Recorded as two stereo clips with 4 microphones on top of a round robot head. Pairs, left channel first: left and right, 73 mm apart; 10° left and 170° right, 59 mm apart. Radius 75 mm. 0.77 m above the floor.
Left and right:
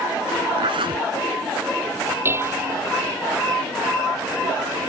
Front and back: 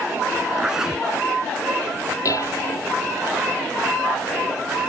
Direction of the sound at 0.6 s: 85° right.